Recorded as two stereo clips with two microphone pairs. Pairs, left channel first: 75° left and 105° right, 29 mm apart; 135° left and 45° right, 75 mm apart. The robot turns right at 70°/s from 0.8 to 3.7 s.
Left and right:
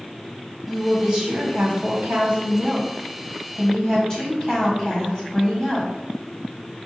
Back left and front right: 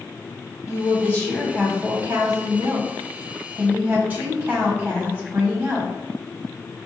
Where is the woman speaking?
175° left, 1.7 m; by 5.9 s 15° left, 1.7 m.